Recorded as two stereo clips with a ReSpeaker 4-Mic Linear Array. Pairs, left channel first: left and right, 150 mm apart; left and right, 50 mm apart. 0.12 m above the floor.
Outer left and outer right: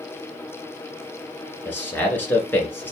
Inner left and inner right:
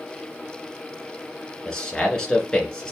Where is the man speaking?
10° left (ahead or behind), 1.6 m.